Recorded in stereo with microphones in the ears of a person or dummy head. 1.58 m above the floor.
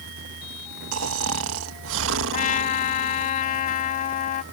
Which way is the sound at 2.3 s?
40° left (ahead or behind).